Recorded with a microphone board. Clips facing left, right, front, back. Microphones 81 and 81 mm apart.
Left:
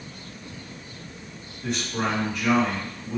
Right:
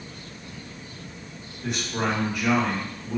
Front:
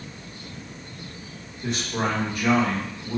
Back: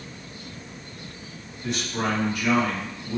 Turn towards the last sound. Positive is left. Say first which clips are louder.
# even, front 1 dB
turn(degrees=-15)